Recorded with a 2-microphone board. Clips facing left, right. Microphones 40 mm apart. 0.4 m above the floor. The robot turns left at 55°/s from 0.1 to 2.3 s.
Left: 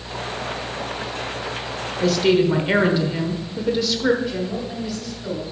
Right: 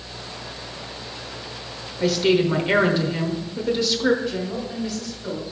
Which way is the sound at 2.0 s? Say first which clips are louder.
Left 2 dB; 5° right (ahead or behind).